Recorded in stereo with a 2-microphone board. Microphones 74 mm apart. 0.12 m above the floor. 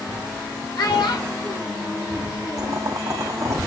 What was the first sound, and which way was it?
A child speaking, 65° left (ahead or behind).